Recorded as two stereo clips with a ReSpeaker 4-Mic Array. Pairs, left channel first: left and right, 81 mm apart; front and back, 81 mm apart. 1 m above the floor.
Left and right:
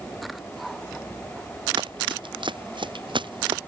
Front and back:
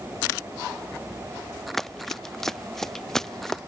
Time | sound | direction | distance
1.8 | running footsteps | 85° right | ?